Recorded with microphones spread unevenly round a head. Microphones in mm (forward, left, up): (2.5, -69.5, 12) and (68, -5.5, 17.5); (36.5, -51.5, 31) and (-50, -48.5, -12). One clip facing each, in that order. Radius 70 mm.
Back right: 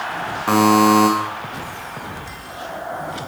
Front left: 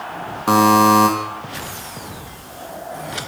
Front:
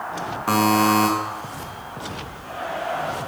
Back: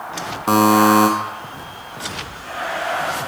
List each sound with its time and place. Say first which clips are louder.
0.5 s a buzzer: front left 1 dB, back 5 dB; 120° left, 0.6 m